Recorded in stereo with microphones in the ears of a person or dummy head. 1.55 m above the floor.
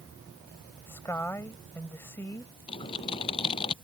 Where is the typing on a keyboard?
30° left (ahead or behind).